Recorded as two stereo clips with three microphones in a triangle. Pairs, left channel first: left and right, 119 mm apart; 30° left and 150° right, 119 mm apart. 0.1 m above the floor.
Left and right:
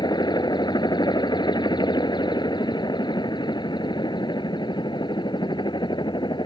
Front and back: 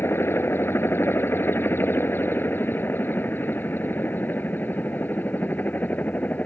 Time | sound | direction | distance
0.0 | a helicopter | 85° left | ?